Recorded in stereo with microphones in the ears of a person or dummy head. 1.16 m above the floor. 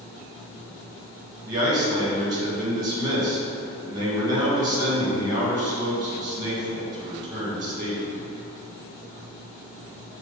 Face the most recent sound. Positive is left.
turn(degrees=-20)  # may be behind; listen again after turning